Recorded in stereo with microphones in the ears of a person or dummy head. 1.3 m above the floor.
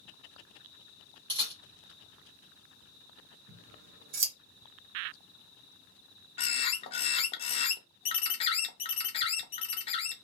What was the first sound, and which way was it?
A camera shutter, 25° right (ahead or behind).